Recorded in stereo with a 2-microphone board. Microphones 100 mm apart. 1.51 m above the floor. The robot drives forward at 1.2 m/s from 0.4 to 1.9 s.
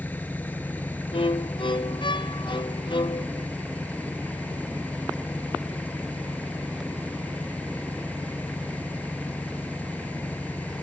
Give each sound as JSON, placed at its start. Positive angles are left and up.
{"t": 0.0, "sound": "an engine running", "side_deg": 15}
{"t": 1.1, "sound": "a violin", "side_deg": 65}